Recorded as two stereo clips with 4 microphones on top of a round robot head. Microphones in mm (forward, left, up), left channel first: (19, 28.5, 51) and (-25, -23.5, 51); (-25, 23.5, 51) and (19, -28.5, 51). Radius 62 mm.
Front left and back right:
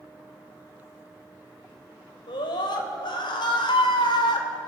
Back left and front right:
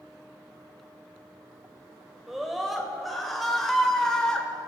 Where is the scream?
35° left, 4 m; by 4.5 s 50° left, 3 m.